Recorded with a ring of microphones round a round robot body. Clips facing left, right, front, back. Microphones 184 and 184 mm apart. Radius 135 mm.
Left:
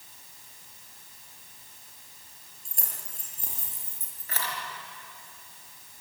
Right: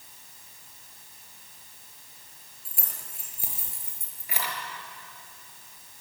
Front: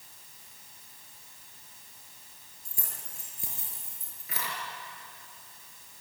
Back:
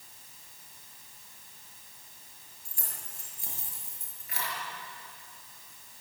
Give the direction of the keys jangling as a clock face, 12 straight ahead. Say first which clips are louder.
Right 1 dB, front 1 dB; 12 o'clock.